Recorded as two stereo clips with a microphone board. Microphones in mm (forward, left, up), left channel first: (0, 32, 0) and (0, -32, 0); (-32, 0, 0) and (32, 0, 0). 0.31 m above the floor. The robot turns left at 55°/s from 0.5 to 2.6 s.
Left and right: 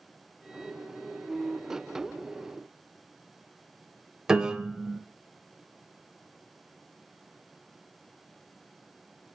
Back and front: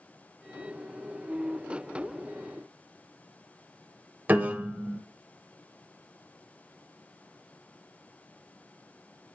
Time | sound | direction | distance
4.3 | a piano | 25° right | 0.7 m